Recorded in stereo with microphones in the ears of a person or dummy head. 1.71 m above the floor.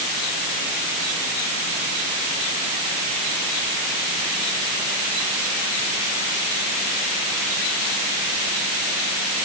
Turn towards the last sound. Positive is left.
No sound to turn to.